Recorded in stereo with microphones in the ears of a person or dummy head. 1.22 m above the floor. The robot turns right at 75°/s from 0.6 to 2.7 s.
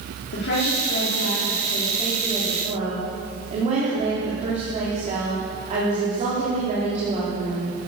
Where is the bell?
I don't hear a bell.